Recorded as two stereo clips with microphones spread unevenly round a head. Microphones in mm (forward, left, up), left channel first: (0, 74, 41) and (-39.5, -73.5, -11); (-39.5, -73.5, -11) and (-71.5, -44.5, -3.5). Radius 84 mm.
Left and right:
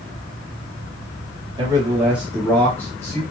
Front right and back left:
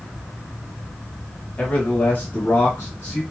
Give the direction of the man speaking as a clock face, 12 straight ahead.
3 o'clock.